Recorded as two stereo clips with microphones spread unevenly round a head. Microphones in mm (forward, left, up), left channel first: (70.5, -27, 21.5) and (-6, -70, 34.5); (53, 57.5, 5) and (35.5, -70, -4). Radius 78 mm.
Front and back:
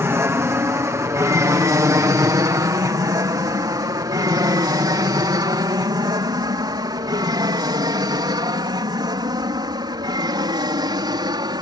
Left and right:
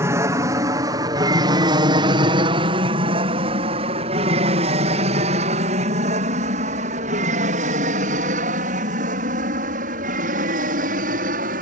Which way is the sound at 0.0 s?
125° right.